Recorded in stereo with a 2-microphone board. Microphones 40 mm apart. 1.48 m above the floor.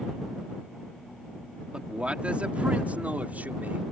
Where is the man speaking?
25° right (ahead or behind); by 3.8 s 40° right (ahead or behind).